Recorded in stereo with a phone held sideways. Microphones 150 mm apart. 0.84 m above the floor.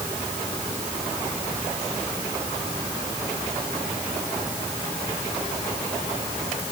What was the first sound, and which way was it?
Only background noise.